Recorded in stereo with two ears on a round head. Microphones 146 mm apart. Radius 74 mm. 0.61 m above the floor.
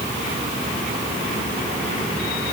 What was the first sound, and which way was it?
Only background noise.